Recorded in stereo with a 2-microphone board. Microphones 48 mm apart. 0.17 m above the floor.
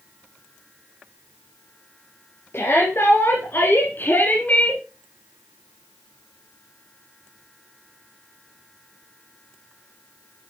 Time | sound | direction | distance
2.5 | a shout | 50° left (ahead or behind) | 3.5 m